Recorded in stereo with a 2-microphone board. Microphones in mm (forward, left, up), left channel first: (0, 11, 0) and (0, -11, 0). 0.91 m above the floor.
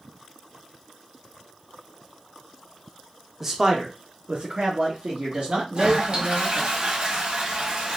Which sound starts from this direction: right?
A toilet flushing, at 5.8 s.